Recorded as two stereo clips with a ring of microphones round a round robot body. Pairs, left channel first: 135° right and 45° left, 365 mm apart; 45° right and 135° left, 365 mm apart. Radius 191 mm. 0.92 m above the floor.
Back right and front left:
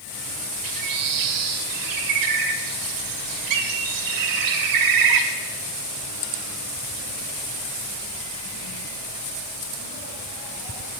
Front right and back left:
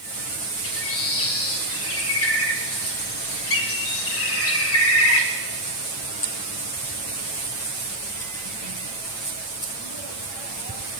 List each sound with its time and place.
0.6 s a bird: 10° left, 1.9 m